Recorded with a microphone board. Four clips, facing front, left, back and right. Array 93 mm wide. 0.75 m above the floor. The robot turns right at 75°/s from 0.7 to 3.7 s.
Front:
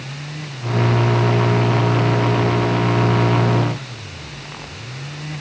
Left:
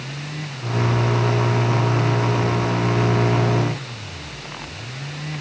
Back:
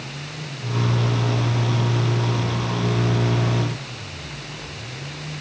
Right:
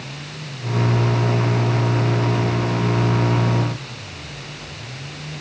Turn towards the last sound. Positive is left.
No sound to turn to.